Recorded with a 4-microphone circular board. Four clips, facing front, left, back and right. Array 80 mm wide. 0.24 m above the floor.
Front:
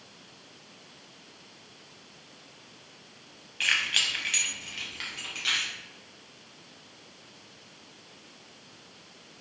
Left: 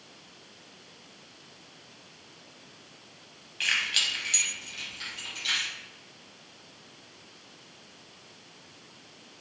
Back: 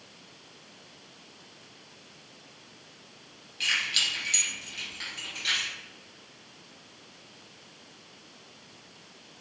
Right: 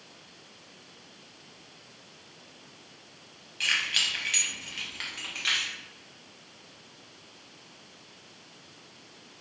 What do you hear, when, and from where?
3.6 s keys jangling: 20° left, 0.9 m; by 5.7 s 75° right, 1.7 m